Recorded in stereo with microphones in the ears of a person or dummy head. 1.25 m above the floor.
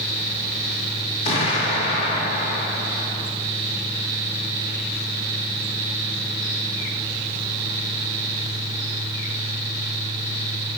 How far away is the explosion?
About 1.9 m.